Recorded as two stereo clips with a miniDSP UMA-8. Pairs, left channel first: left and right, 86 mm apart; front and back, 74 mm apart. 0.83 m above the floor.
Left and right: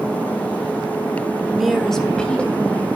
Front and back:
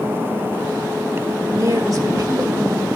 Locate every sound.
1.5 s a woman speaking: 175° right, 1.2 m; by 3.0 s 160° left, 2.5 m